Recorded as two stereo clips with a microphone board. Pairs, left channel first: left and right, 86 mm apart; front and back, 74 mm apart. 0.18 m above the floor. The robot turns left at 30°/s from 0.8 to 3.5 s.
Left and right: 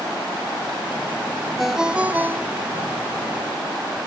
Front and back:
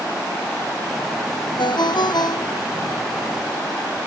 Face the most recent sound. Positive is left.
turn(degrees=-55)